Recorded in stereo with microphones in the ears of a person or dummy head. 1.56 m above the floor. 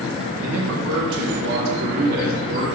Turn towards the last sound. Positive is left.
turn(degrees=-50)  # may be behind; listen again after turning